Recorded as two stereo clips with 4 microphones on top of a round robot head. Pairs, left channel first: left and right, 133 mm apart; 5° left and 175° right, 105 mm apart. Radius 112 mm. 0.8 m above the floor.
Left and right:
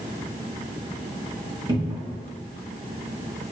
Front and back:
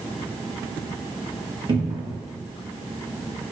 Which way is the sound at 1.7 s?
145° right.